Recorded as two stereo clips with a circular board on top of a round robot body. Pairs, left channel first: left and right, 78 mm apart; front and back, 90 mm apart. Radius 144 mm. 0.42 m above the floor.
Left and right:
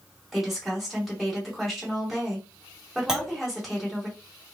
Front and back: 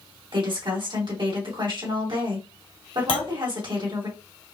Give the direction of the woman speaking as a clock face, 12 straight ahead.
6 o'clock.